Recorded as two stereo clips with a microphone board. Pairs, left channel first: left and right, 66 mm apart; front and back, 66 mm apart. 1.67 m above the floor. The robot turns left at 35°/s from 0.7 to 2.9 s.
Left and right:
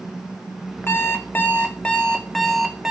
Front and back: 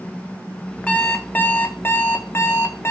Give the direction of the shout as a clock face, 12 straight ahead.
No shout in this recording.